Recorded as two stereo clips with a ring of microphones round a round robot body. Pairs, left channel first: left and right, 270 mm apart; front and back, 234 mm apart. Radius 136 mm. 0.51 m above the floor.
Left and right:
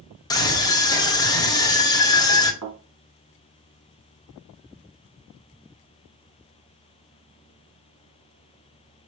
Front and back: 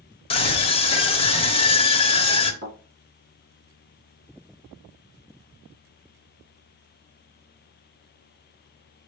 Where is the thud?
120° right, 2.5 m.